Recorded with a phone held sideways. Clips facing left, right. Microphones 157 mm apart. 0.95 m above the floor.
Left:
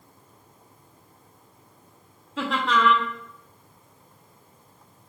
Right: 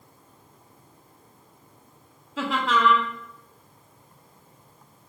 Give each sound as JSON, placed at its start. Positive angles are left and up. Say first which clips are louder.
{"t": 2.4, "sound": "laughter", "louder": "even", "side_deg": 0, "distance_m": 1.0}